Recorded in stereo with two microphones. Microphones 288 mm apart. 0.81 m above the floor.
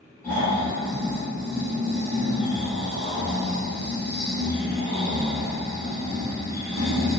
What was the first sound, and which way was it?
Snoring, 10° left (ahead or behind).